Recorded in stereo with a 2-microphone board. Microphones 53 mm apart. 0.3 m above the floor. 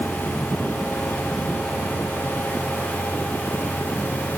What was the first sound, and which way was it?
Only background noise.